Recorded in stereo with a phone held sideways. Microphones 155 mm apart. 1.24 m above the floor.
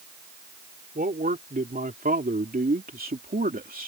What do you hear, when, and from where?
0.9 s a man speaking: 75° right (ahead or behind); by 3.9 s 70° right (ahead or behind)